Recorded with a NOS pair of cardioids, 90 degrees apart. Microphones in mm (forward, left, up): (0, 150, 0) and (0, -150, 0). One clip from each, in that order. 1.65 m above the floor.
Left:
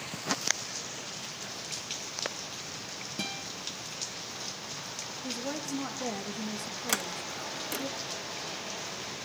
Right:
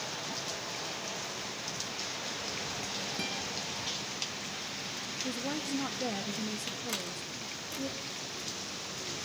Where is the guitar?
15° left, 6 m.